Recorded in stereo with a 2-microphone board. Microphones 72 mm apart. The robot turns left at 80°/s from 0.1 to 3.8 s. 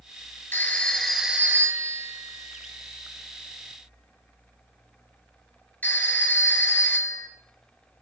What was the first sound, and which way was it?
A phone ringing, 30° left (ahead or behind).